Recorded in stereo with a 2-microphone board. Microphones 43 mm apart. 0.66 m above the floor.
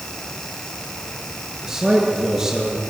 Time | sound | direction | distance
1.6 | a man speaking | 20° right (ahead or behind) | 9 m